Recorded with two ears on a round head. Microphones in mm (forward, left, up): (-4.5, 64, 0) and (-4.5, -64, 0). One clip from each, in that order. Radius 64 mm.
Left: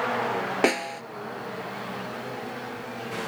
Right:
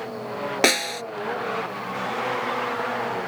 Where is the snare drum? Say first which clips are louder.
Right 6 dB; 70° right (ahead or behind).